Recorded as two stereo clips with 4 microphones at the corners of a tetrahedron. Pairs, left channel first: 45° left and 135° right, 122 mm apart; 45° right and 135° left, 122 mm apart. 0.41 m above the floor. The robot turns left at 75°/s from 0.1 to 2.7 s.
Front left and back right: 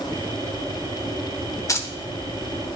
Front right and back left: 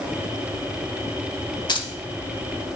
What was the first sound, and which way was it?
Keys jangling, 10° right.